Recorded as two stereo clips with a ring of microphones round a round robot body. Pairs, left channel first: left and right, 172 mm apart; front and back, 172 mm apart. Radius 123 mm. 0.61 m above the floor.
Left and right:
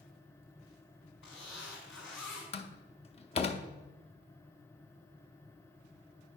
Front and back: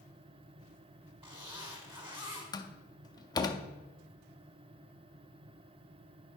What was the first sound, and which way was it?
A zipper, 120° left.